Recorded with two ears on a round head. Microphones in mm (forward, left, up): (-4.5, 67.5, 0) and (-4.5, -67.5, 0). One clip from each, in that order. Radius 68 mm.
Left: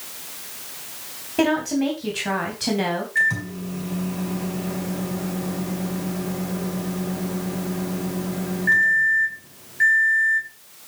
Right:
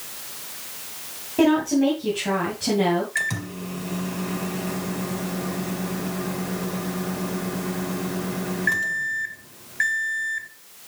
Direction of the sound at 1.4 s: 40° left (ahead or behind).